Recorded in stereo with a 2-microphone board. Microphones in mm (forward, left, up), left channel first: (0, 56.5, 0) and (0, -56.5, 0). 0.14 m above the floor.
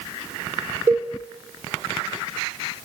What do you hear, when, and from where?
0.9 s a cowbell: 20° right (ahead or behind), 1.9 m